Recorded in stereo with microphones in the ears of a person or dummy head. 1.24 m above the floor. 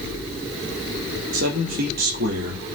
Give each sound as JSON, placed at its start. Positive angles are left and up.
{"t": 1.3, "sound": "a man speaking", "side_deg": -65, "distance_m": 3.5}